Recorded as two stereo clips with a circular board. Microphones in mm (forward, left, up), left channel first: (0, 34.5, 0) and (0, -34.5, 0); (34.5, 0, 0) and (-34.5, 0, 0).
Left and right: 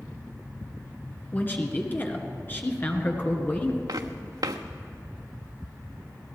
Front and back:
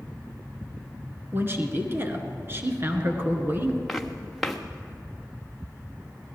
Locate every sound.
1.3 s a man speaking: 140° left, 1.9 m
3.9 s footsteps: 85° right, 1.1 m